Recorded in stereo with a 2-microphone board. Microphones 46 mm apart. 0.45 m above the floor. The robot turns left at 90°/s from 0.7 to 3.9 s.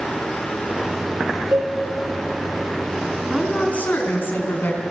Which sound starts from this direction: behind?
A woman speaking, at 3.3 s.